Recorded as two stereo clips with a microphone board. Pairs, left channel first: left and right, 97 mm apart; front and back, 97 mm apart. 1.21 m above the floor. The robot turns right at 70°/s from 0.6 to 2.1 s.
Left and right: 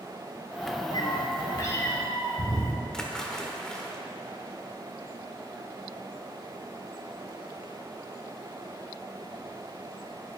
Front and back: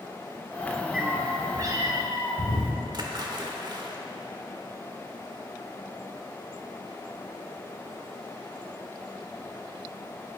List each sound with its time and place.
0.9 s a cat meowing: 90° left, 1.7 m; by 2.7 s 170° left, 1.7 m
2.9 s a splash: 170° left, 1.2 m